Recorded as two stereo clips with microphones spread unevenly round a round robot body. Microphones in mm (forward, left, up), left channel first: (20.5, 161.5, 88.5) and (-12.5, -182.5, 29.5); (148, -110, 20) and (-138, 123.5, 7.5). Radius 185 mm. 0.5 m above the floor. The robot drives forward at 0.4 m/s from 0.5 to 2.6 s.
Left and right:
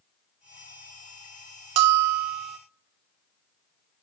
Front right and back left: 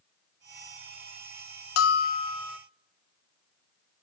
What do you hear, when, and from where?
1.8 s a bell: 90° right, 0.5 m; by 2.6 s 125° right, 0.6 m